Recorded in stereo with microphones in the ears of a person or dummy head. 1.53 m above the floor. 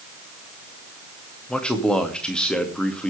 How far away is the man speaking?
About 2 m.